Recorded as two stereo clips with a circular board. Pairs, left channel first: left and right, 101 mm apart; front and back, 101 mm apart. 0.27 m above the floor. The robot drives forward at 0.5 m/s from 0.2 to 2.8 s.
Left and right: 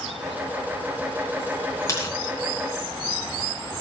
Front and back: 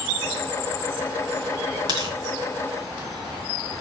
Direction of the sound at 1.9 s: 145° left.